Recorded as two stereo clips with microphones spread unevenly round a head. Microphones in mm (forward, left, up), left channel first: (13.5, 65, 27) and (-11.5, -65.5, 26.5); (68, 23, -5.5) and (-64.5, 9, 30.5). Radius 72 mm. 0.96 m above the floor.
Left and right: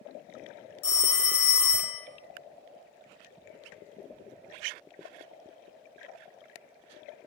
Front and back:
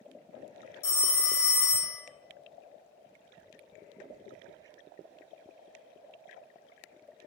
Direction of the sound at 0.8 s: 25° left.